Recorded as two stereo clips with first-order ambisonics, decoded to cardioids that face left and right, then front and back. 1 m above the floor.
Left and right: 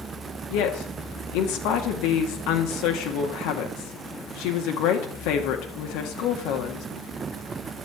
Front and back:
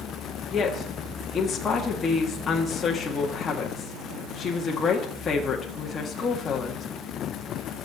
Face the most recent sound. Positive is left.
turn(degrees=70)